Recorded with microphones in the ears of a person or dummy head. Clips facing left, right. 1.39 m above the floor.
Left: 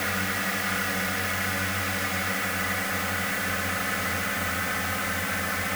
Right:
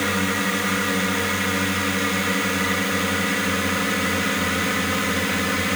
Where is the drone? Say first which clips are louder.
Right 8 dB; 60° right (ahead or behind); by 5.8 s 55° right (ahead or behind).